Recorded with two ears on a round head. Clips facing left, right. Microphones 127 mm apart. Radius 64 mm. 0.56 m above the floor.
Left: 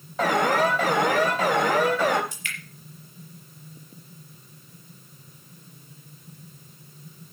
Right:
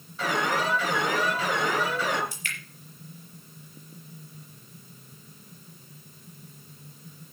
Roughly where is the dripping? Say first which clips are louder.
Even; right.